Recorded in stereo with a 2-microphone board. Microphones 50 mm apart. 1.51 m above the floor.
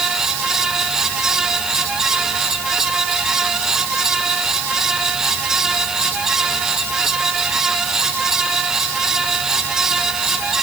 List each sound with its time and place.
Only background noise.